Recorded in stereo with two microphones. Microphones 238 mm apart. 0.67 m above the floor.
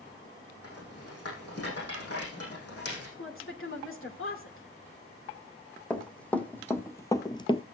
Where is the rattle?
80° left, 6.5 m.